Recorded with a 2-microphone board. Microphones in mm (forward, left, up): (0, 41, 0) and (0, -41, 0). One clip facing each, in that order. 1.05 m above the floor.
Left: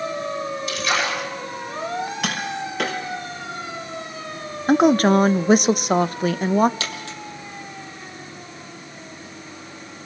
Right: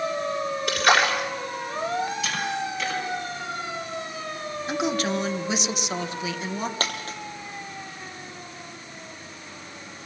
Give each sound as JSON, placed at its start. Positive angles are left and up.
{"t": 0.7, "sound": "a splash", "side_deg": -75, "distance_m": 5.0}
{"t": 2.2, "sound": "tapping", "side_deg": 65, "distance_m": 4.5}
{"t": 4.7, "sound": "a woman speaking", "side_deg": 50, "distance_m": 0.7}
{"t": 6.8, "sound": "a dropped coin", "side_deg": -40, "distance_m": 3.5}